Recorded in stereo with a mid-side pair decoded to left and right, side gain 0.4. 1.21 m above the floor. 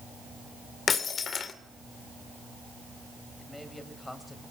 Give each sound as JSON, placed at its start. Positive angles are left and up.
{"t": 0.9, "sound": "breaking glass", "azimuth_deg": 50, "distance_m": 2.5}
{"t": 3.4, "sound": "a man speaking", "azimuth_deg": 15, "distance_m": 6.0}